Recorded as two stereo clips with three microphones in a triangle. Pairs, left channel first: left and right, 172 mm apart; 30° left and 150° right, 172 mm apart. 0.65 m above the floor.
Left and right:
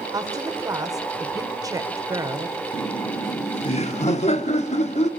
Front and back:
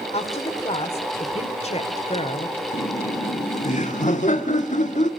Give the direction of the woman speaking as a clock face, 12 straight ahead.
1 o'clock.